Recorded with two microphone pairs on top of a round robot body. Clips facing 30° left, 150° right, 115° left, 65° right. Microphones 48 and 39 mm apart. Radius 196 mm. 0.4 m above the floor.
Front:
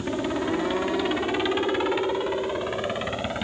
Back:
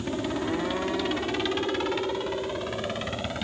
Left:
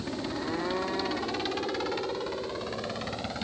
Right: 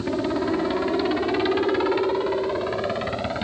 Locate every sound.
0.0 s a helicopter: 40° right